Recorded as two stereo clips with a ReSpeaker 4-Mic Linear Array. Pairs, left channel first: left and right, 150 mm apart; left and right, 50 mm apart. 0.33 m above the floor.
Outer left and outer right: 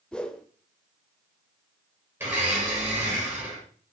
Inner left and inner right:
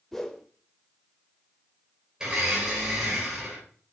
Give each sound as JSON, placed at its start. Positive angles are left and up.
{"t": 0.1, "sound": "a whoosh", "side_deg": 5, "distance_m": 0.8}
{"t": 2.2, "sound": "a blender", "side_deg": -15, "distance_m": 3.0}